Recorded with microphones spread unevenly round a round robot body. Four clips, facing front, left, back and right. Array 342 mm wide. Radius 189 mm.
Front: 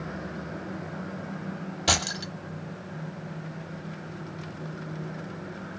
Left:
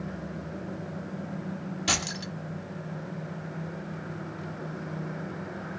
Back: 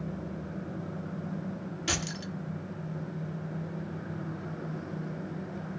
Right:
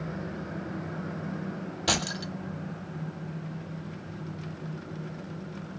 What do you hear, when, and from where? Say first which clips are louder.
1.9 s keys jangling: right 3 dB, front 7 dB; 15° right, 1.3 m